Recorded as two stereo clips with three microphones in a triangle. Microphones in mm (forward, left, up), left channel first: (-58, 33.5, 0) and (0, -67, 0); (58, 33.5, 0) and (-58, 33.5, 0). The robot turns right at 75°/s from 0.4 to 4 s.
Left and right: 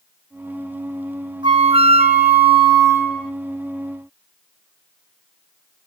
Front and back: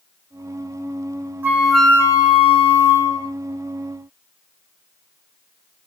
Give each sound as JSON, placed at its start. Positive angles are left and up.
{"t": 1.4, "sound": "a flute", "azimuth_deg": -110, "distance_m": 1.0}